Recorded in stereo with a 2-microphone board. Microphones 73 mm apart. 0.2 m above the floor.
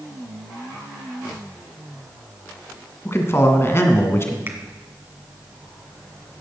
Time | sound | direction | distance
3.0 | a man speaking | 35° left (ahead or behind) | 1.7 m
4.5 | a finger snap | 30° right (ahead or behind) | 1.6 m